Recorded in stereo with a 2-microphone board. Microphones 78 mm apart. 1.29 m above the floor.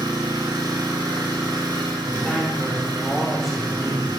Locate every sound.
0.0 s an engine running: 75° right (ahead or behind), 5.5 m
2.1 s a man speaking: centre (ahead or behind), 5 m